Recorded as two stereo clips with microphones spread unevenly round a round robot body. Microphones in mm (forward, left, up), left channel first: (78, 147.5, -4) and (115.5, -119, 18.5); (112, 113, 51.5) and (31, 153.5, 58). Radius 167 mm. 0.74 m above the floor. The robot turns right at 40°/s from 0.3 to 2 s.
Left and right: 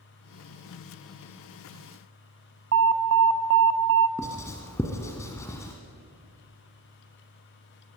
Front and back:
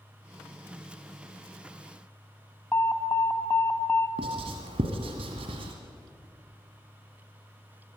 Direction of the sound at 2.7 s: 75° right.